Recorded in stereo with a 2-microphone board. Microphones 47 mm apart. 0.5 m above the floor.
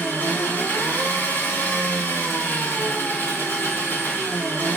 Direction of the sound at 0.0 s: 45° left (ahead or behind).